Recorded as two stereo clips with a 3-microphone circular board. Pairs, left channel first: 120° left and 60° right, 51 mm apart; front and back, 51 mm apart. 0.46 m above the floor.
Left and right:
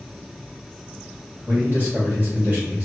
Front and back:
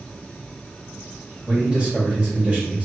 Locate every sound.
1.5 s a man speaking: 110° right, 2.0 m